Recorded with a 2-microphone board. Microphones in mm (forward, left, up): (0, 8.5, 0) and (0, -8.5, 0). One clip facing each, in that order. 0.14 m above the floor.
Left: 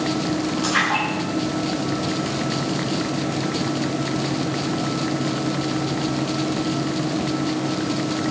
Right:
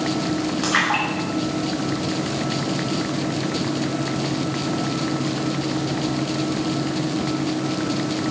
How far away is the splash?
About 8 m.